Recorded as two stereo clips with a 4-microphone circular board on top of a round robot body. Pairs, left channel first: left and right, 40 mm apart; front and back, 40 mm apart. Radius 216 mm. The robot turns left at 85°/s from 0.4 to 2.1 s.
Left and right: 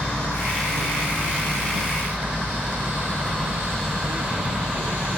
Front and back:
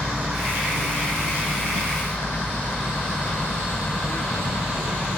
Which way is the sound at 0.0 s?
110° left.